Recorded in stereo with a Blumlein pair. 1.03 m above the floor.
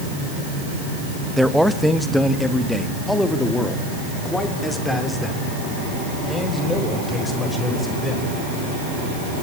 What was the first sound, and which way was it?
A man speaking, straight ahead.